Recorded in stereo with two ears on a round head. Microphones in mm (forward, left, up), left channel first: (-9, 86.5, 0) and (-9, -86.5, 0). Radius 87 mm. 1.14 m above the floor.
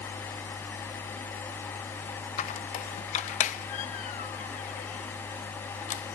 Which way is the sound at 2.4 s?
40° left (ahead or behind).